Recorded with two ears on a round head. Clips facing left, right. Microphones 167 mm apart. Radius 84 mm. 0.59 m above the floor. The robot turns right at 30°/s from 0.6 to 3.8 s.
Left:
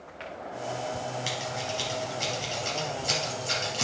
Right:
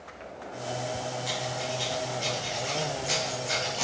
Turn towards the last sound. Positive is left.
turn(degrees=30)  # may be behind; listen again after turning